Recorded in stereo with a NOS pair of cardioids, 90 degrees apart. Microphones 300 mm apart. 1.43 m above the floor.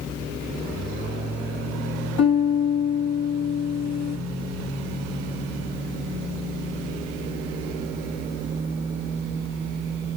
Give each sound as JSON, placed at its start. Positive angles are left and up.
{"t": 2.2, "sound": "a piano", "azimuth_deg": 65, "distance_m": 1.1}